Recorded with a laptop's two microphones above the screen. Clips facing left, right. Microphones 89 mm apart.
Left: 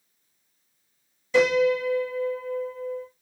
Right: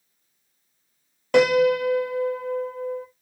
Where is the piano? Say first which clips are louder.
Right 3 dB; 65° right (ahead or behind), 0.9 m.